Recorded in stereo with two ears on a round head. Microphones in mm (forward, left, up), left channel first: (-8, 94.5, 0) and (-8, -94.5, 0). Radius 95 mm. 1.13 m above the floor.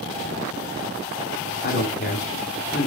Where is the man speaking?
50° left (ahead or behind), 3 m.